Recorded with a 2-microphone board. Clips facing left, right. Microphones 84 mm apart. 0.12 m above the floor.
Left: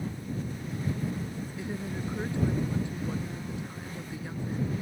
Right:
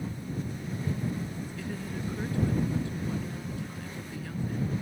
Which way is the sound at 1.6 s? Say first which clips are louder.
Left 2 dB; 20° left (ahead or behind).